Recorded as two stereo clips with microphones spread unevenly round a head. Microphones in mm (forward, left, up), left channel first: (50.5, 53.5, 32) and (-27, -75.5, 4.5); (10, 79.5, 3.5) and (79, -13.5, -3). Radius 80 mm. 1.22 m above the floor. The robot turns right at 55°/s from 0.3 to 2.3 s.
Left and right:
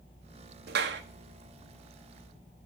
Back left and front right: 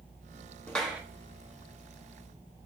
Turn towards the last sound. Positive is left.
turn(degrees=-65)